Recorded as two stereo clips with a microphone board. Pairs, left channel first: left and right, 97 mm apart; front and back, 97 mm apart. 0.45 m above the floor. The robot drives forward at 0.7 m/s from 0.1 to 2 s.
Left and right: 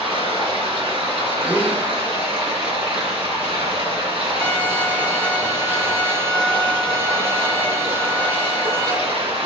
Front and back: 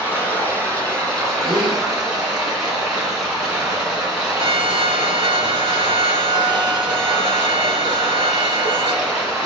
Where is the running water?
70° right, 3 m; by 9.5 s 95° right, 3 m.